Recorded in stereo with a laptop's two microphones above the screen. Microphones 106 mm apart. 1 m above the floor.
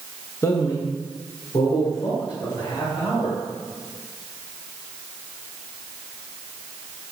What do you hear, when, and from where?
0.4 s a man speaking: 25° left (ahead or behind), 0.7 m; by 3.4 s 50° left (ahead or behind), 4.5 m